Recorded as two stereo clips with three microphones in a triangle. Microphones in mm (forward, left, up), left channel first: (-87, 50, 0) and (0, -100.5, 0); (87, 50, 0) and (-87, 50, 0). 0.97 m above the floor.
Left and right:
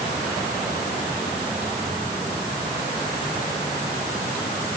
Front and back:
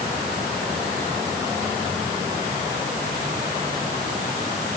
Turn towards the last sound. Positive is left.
No sound to turn to.